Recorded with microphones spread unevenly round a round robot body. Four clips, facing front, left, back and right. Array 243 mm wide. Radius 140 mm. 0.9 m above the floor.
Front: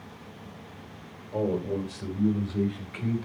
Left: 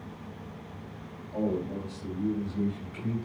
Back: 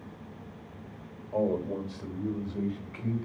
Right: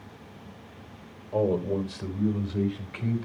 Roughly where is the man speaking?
Right.